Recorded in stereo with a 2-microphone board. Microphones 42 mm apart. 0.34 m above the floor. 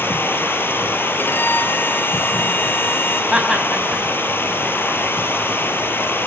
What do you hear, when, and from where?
0.0 s running water: 65° left (ahead or behind), 3 m
1.2 s a violin: 65° left (ahead or behind), 2.0 m
3.3 s laughter: 20° right (ahead or behind), 3 m